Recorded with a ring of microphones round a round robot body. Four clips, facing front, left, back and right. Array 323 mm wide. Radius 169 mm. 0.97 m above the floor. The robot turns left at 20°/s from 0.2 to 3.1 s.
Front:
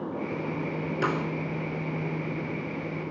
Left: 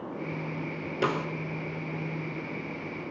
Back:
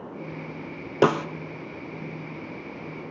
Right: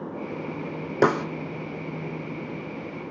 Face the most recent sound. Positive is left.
turn(degrees=180)